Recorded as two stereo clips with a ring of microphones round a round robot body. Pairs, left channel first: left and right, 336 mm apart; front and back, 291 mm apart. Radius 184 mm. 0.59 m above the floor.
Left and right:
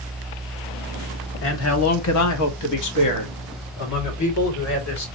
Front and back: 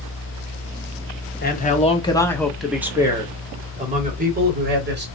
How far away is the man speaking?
About 1.3 m.